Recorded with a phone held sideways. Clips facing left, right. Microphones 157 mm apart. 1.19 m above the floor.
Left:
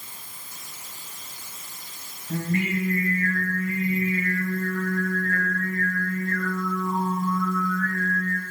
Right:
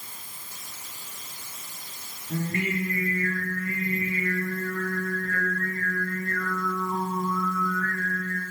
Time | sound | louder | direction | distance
2.3 | singing | left 3 dB | 65° left (ahead or behind) | 5 m